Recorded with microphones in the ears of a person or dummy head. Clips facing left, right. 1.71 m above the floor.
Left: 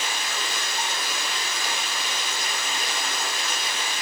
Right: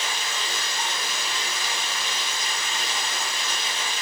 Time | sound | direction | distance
0.0 | running water | 45° left (ahead or behind) | 3.5 m